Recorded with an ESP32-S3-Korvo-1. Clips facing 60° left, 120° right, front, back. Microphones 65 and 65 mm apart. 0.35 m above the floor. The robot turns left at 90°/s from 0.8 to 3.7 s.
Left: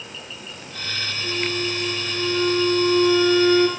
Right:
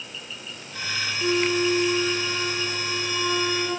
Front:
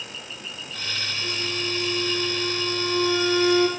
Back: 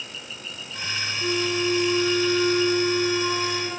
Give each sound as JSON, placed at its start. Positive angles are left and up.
{"t": 1.2, "sound": "a flute", "azimuth_deg": -120, "distance_m": 4.0}